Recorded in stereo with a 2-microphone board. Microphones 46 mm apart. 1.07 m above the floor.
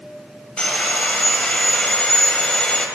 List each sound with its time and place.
0.6 s sawing: 20° left (ahead or behind), 4.5 m